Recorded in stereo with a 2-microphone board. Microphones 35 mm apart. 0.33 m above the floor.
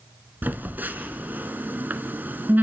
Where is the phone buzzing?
60° right (ahead or behind), 1.3 m.